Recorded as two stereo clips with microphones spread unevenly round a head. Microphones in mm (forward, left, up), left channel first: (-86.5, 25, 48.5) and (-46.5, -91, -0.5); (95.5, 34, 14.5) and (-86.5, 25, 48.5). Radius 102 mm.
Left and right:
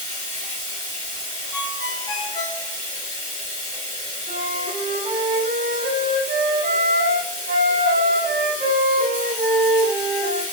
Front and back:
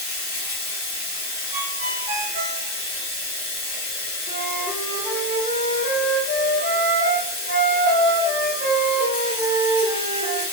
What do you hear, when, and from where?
0.0 s running water: 15° right, 1.5 m
1.5 s a ringtone: 140° left, 0.7 m
4.3 s a flute: 60° right, 1.1 m